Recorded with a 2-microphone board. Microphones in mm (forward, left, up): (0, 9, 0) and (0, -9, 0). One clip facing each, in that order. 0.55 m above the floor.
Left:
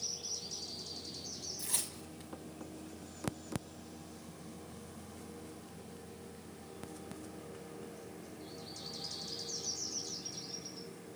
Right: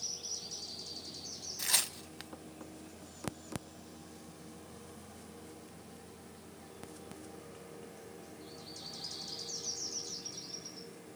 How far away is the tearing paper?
About 0.6 m.